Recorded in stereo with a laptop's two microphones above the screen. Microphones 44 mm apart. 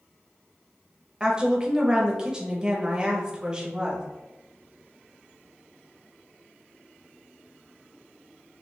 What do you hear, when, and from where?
1.2 s a woman speaking: 20° right (ahead or behind), 1.0 m